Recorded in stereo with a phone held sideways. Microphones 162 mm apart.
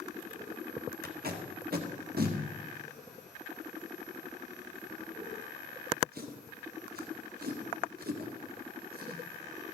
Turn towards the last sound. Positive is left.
turn(degrees=-70)  # may be behind; listen again after turning